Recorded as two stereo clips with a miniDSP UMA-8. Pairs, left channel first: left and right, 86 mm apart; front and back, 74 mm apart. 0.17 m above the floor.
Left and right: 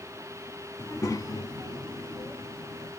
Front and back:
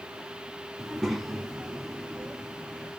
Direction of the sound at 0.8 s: 90° left.